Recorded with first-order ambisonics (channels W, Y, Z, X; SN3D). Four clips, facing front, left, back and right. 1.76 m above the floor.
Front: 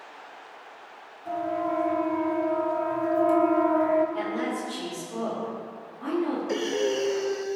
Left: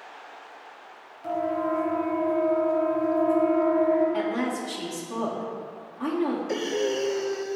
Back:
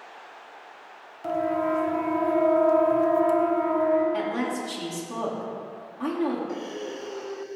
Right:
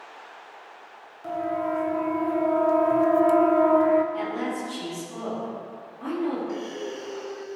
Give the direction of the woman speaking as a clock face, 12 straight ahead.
7 o'clock.